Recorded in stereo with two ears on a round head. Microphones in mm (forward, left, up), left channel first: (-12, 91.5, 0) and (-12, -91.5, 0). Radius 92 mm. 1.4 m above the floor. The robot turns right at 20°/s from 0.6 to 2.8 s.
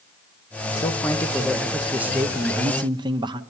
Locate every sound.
0.8 s a man speaking: 165° left, 1.2 m; by 3.4 s 155° right, 1.2 m